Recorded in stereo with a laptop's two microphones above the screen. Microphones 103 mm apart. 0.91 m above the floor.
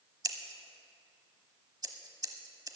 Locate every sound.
0.2 s scissors: 40° right (ahead or behind), 0.9 m